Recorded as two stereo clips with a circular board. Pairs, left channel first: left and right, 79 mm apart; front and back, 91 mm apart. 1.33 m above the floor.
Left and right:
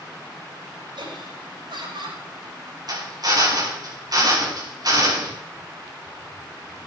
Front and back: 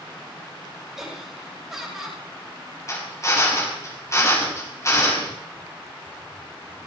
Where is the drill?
55° right, 4.5 m.